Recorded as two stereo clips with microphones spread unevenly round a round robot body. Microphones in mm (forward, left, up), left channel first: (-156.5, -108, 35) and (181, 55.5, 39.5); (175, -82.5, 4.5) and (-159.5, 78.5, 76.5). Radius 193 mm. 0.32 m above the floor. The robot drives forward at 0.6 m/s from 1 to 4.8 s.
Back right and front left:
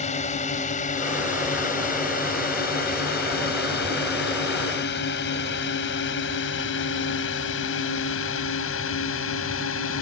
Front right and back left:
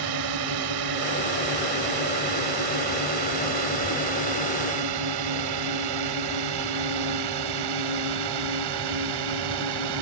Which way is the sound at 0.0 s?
140° left.